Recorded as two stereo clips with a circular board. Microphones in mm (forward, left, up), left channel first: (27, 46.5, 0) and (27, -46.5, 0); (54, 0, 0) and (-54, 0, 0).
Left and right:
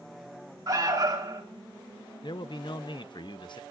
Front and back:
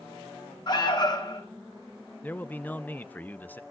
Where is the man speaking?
70° left, 0.7 m.